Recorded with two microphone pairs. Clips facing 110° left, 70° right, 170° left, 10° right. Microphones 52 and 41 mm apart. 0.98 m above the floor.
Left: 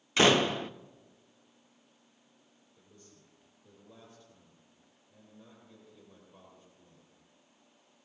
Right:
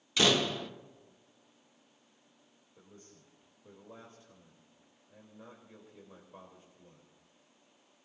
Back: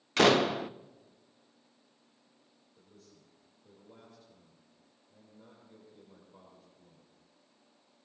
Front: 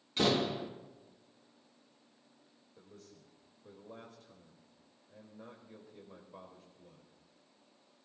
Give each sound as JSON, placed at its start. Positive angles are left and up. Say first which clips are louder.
{"t": 0.2, "sound": "a door slam", "louder": "left 4 dB, back 7 dB", "azimuth_deg": 170, "distance_m": 0.6}
{"t": 2.8, "sound": "a man speaking", "louder": "right 3 dB, front 3 dB", "azimuth_deg": -15, "distance_m": 3.5}